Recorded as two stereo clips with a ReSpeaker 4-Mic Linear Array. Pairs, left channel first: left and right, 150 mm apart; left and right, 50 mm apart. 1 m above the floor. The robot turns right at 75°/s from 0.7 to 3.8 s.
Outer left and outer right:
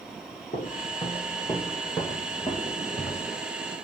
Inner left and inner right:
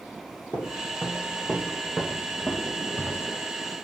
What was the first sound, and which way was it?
Footsteps, 55° left (ahead or behind).